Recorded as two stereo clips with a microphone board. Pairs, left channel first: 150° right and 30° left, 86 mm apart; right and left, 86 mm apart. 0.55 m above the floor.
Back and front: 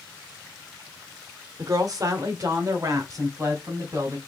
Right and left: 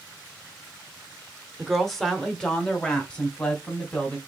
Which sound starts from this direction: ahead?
A woman speaking, at 1.6 s.